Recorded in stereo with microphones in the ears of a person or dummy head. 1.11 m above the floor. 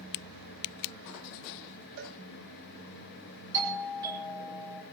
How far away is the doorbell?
About 7.5 m.